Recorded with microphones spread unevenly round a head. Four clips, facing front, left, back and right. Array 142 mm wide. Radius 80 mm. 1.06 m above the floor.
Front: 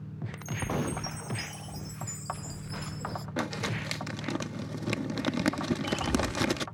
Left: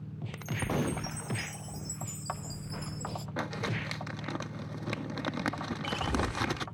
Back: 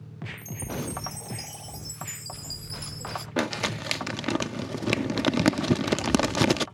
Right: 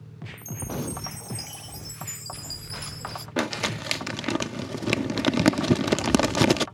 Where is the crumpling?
105° right.